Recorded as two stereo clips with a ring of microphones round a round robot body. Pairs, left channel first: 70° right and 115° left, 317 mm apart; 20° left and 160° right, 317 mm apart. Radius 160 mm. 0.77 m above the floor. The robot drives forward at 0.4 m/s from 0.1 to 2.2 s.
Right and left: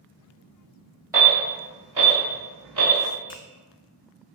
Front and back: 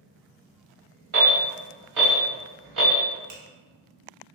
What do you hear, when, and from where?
1.1 s an alarm: 170° right, 1.9 m
3.3 s a finger snap: 140° right, 0.7 m